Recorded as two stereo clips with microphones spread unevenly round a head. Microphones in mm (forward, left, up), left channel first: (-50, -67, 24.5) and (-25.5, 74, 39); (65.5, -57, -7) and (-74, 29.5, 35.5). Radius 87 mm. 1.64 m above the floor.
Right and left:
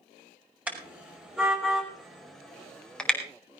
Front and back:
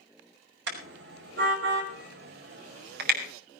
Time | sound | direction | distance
0.7 | a car horn | 160° left | 5.5 m